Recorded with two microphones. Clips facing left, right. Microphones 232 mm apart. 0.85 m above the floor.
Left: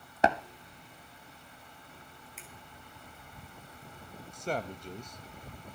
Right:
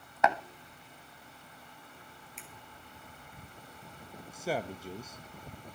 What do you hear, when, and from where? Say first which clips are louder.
0.2 s tapping: left 2 dB; 35° left (ahead or behind), 0.9 m
2.4 s a finger snap: right 2 dB; centre (ahead or behind), 3 m
4.3 s a man speaking: right 1 dB; 5° right (ahead or behind), 0.5 m